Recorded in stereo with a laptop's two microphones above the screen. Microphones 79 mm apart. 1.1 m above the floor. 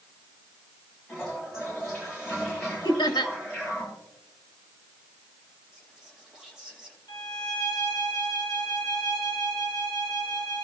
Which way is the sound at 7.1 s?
55° left (ahead or behind).